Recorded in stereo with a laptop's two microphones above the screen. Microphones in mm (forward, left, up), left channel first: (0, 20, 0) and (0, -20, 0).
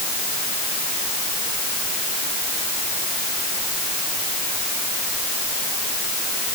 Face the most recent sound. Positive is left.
No sound to turn to.